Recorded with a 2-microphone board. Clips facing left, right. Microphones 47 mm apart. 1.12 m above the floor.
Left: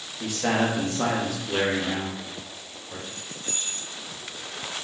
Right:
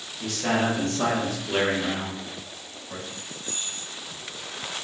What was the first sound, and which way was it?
A man speaking, 25° left (ahead or behind).